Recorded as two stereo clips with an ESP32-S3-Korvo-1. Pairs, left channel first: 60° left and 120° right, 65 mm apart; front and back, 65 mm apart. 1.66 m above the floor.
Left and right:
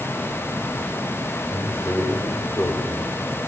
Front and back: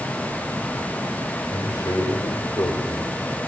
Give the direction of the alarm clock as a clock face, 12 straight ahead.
I don't hear an alarm clock.